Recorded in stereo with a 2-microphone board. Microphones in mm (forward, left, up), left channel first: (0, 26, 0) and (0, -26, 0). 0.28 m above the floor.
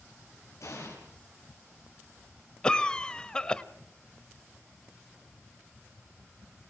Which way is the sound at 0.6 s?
70° left (ahead or behind).